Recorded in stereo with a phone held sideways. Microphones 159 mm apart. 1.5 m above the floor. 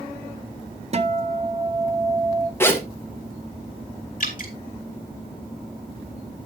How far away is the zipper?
About 1.3 m.